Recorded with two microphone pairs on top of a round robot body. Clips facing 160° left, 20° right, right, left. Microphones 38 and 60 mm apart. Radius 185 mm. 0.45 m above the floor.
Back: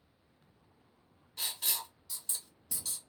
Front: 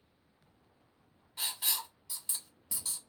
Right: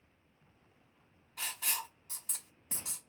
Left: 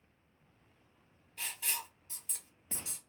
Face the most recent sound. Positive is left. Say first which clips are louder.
# front 1 dB, right 1 dB
turn(degrees=-100)